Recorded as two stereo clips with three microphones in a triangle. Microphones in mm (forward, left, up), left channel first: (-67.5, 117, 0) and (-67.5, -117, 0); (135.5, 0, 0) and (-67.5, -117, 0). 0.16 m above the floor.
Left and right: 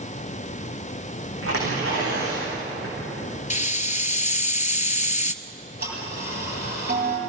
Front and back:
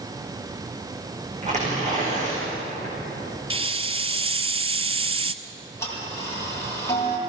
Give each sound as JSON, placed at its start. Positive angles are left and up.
{"t": 1.4, "sound": "tearing paper", "azimuth_deg": -90, "distance_m": 9.5}
{"t": 3.5, "sound": "a hiss", "azimuth_deg": 150, "distance_m": 0.7}
{"t": 5.4, "sound": "ticking", "azimuth_deg": -45, "distance_m": 5.0}